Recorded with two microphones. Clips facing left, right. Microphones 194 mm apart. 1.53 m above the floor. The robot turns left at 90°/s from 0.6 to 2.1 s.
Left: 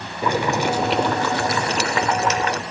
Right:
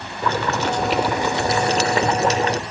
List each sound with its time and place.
0.2 s boiling: 25° left, 1.4 m; by 2.6 s 110° right, 1.4 m